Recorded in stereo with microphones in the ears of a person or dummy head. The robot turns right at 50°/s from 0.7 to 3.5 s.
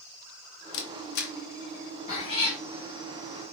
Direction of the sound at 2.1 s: 25° left (ahead or behind).